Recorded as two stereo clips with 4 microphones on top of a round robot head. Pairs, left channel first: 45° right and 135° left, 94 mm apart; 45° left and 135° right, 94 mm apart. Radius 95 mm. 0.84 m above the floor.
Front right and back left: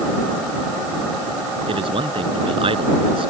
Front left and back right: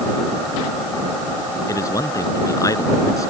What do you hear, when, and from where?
1.7 s a man speaking: 105° left